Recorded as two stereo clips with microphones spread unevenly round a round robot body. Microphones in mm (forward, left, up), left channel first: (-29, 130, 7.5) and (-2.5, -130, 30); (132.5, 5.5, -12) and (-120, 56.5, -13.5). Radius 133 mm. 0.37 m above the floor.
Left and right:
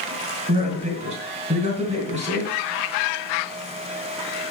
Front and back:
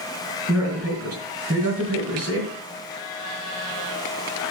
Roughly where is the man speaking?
Behind right.